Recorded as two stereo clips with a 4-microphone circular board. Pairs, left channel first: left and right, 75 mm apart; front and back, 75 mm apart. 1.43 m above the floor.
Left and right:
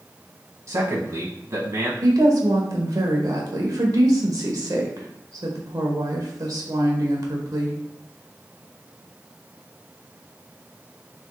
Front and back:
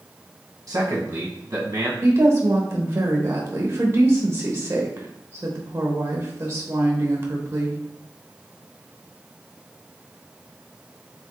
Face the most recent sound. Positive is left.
turn(degrees=-120)